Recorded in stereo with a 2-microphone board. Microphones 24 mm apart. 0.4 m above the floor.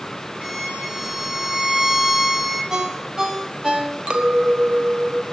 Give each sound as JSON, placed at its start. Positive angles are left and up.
{"t": 0.4, "sound": "a violin", "side_deg": -35, "distance_m": 6.0}
{"t": 2.7, "sound": "a ringtone", "side_deg": -25, "distance_m": 2.0}
{"t": 4.1, "sound": "a clink", "side_deg": -45, "distance_m": 1.4}